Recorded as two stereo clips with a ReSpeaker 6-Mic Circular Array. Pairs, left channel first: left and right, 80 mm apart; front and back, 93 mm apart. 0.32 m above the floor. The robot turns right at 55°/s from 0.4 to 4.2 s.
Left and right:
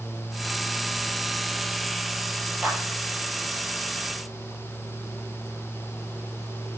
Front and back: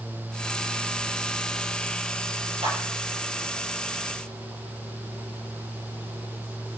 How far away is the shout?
I don't hear a shout.